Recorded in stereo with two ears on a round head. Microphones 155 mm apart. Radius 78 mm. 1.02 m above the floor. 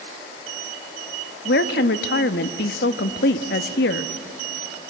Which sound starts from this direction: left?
A woman speaking, at 1.4 s.